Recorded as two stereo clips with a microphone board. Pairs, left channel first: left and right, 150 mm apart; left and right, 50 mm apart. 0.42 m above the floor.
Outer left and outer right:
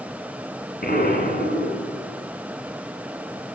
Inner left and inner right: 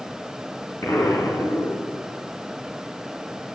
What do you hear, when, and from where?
0.8 s an explosion: 75° left (ahead or behind), 4 m